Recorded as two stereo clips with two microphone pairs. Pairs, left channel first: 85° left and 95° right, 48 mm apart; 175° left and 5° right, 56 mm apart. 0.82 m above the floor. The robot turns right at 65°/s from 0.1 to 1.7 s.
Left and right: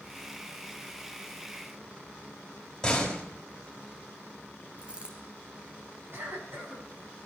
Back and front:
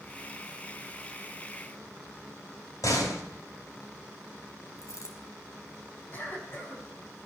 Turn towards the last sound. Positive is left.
turn(degrees=-130)